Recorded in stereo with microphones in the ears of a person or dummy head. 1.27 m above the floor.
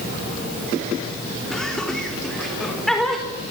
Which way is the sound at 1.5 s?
Centre (ahead or behind).